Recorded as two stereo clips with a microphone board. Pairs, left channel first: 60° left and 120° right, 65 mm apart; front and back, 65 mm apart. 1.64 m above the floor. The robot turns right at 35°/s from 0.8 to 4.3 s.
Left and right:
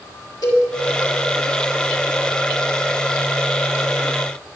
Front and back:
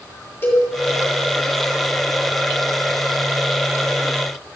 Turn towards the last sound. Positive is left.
turn(degrees=180)